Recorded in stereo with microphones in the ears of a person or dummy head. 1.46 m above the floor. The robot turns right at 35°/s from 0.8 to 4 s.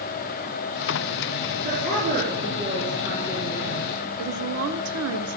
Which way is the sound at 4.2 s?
75° right (ahead or behind).